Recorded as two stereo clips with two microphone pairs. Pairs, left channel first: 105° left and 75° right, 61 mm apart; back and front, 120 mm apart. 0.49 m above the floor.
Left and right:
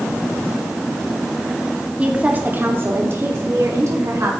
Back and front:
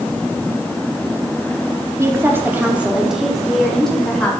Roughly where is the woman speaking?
Ahead right.